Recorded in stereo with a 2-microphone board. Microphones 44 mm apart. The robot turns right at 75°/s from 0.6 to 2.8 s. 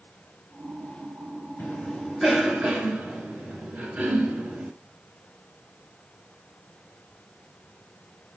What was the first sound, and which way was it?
A cough, 50° left (ahead or behind).